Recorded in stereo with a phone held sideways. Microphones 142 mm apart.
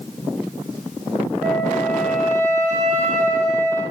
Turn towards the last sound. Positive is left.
turn(degrees=-60)  # may be behind; listen again after turning